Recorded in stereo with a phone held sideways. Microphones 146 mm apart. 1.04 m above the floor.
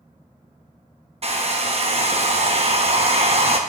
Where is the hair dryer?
50° right (ahead or behind), 0.7 m.